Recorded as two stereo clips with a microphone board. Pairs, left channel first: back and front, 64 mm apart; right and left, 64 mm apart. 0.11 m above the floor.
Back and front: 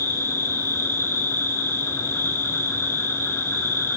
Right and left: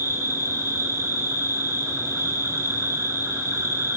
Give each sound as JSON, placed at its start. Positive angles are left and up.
{"t": 0.0, "sound": "an insect", "azimuth_deg": 135, "distance_m": 1.1}